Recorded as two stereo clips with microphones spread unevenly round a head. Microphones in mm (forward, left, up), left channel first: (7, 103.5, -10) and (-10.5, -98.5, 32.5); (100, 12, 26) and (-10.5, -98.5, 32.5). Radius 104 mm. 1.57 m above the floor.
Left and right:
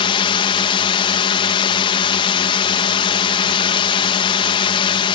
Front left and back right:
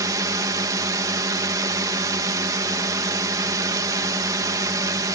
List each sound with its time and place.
0.0 s a drone: 150° left